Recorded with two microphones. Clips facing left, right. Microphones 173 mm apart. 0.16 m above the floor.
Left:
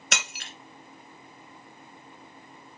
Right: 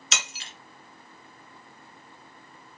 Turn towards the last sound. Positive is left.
turn(degrees=60)  # may be behind; listen again after turning